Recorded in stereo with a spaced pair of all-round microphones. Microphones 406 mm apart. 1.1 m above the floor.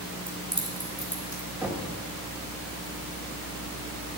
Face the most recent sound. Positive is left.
turn(degrees=-5)  # may be behind; listen again after turning